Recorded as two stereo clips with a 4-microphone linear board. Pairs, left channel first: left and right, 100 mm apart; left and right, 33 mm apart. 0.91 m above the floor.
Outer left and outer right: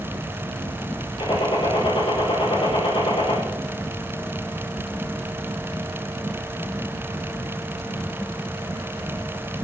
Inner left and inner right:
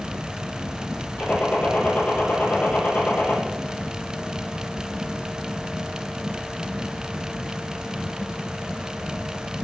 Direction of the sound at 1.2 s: 60° left (ahead or behind).